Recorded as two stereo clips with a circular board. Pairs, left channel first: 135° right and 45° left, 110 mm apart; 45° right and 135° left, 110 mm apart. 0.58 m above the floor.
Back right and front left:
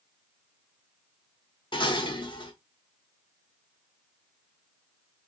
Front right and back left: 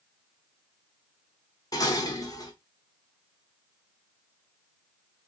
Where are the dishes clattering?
100° right, 1.0 m.